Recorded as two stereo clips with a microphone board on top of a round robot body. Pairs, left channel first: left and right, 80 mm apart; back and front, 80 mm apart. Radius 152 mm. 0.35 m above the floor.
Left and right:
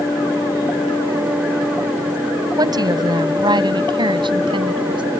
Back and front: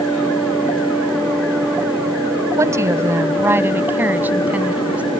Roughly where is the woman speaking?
Ahead right.